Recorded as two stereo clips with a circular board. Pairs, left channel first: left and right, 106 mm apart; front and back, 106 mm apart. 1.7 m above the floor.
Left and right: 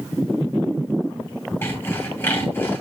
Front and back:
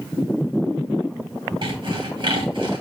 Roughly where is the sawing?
Behind left.